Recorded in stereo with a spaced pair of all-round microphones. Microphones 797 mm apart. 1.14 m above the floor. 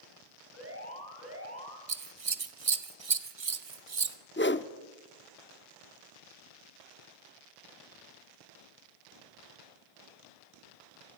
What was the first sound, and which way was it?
An alarm, 15° right (ahead or behind).